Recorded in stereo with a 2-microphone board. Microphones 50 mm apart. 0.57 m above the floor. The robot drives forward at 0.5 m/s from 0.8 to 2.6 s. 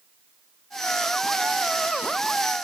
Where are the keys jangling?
No keys jangling in this recording.